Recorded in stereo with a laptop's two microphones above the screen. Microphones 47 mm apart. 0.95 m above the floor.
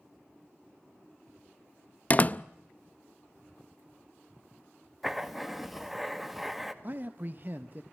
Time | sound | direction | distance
2.1 | a door slam | 35° left (ahead or behind) | 0.5 m
5.0 | writing | 5° right (ahead or behind) | 1.5 m
6.8 | a man speaking | 40° right (ahead or behind) | 0.9 m